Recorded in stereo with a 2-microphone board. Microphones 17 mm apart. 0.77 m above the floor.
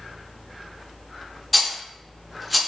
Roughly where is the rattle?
Centre.